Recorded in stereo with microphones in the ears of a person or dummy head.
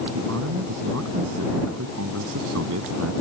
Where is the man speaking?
85° right; by 3.1 s 80° right.